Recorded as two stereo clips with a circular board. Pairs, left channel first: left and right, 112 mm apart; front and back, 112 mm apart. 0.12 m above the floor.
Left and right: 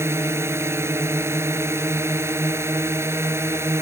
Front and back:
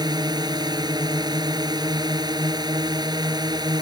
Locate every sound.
0.0 s a drone: 150° right